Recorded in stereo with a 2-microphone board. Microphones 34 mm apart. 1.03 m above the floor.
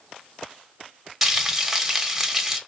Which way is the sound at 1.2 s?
5° right (ahead or behind).